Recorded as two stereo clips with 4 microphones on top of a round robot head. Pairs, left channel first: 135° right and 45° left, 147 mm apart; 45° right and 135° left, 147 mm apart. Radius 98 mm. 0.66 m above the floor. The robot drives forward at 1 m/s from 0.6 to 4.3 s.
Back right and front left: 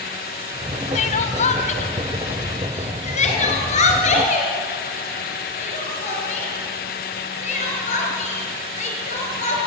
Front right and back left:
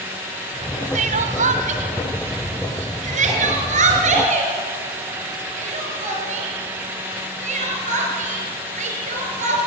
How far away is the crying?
About 1.5 m.